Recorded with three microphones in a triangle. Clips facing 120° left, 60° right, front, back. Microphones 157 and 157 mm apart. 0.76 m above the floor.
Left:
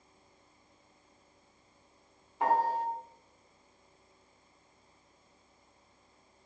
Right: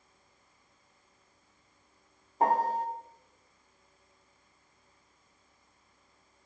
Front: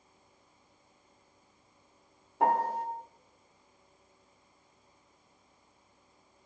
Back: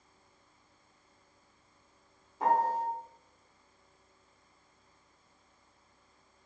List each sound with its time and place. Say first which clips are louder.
2.4 s a piano: right 1 dB, even; 15° right, 1.3 m